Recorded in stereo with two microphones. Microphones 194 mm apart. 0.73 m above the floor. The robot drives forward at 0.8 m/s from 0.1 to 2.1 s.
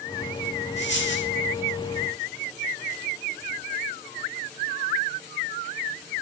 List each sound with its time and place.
0.8 s a dropped coin: 70° left (ahead or behind), 3 m; by 1.3 s 75° left (ahead or behind), 3 m